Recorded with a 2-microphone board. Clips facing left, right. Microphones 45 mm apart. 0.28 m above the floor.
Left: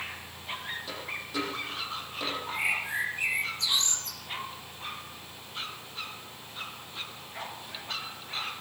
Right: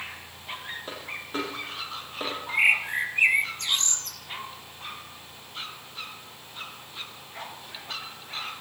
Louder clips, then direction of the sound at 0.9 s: Right 1 dB; 40° right (ahead or behind).